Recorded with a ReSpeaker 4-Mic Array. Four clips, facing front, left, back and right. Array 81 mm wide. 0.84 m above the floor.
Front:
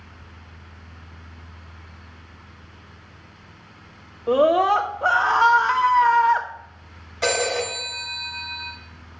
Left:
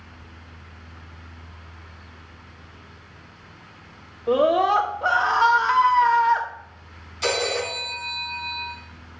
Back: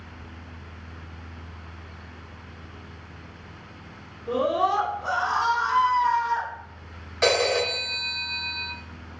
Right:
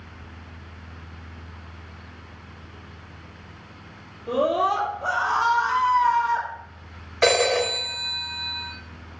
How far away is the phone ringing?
About 3 m.